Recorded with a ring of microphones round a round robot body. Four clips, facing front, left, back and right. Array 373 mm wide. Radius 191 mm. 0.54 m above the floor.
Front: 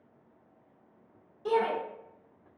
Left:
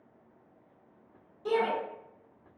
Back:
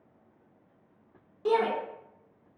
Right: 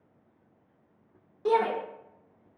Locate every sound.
1.4 s a shout: 125° right, 1.7 m